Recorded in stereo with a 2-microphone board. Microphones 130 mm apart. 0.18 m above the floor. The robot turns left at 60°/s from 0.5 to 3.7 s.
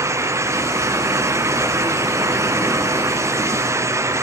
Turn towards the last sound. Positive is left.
No sound to turn to.